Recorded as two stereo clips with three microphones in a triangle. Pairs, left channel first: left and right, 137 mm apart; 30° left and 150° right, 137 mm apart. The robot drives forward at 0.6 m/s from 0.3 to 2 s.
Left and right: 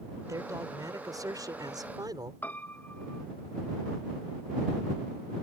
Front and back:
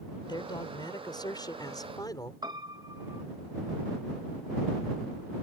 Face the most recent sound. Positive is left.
turn(degrees=165)